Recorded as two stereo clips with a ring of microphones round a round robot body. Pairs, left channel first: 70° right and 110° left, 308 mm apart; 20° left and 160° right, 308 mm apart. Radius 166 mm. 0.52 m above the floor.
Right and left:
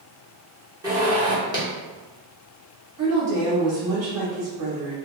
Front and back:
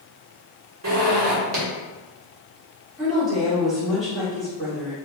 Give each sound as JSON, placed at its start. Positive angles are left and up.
{"t": 0.8, "sound": "a zipper", "azimuth_deg": -170, "distance_m": 1.1}
{"t": 3.0, "sound": "a woman speaking", "azimuth_deg": 115, "distance_m": 1.6}